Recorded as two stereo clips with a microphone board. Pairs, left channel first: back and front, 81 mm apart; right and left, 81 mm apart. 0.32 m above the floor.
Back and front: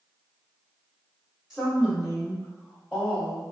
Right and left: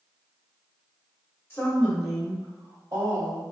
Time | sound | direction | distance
1.5 | a woman speaking | 80° right | 0.9 m